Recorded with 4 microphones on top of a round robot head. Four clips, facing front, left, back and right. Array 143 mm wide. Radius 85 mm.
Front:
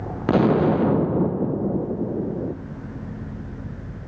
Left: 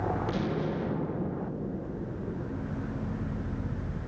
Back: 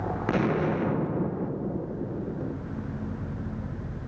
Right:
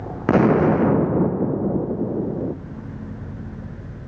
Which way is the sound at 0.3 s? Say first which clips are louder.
Right 15 dB, front 9 dB; 60° right.